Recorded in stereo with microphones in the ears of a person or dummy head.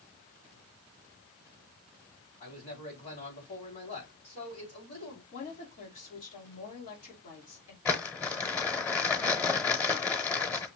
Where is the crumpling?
10° left (ahead or behind), 0.8 m.